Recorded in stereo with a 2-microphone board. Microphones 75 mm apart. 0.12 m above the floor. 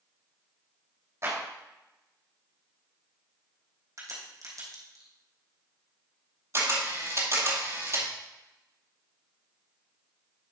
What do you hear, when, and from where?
1.2 s a clap: 40° right (ahead or behind), 4 m
4.0 s a crack: 50° right (ahead or behind), 3 m
6.5 s a camera shutter: 45° right (ahead or behind), 1.9 m